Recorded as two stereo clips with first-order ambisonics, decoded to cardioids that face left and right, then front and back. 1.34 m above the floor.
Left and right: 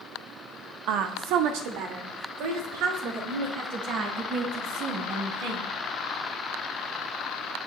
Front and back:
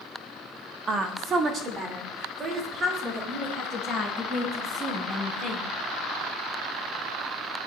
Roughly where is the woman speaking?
Behind right.